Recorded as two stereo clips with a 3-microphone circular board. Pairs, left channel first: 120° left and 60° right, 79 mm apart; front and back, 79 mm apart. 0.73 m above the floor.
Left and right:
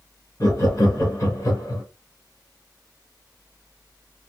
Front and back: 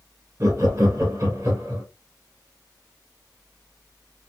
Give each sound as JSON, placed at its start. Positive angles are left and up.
{"t": 0.4, "sound": "laughter", "azimuth_deg": 155, "distance_m": 1.5}